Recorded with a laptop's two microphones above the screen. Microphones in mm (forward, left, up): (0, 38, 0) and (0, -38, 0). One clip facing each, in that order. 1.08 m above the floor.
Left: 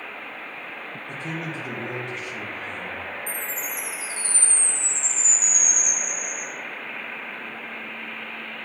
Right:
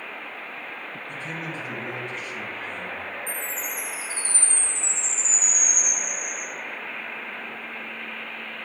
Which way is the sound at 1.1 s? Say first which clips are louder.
Left 3 dB; 75° left (ahead or behind).